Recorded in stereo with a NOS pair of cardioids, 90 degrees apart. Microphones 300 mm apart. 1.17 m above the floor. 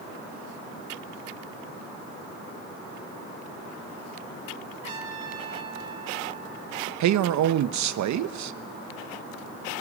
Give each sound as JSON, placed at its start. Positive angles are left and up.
{"t": 4.8, "sound": "a trumpet", "azimuth_deg": -55, "distance_m": 3.5}
{"t": 7.0, "sound": "a man speaking", "azimuth_deg": -70, "distance_m": 1.1}